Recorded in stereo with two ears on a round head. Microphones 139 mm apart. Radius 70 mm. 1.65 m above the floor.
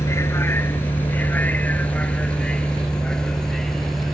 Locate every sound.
0.0 s a vehicle: 20° left (ahead or behind); by 4.2 s centre (ahead or behind)